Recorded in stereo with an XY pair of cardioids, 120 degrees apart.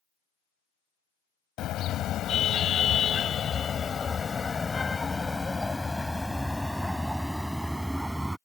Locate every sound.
1.6 s a car horn: 65° left; by 8.4 s 15° right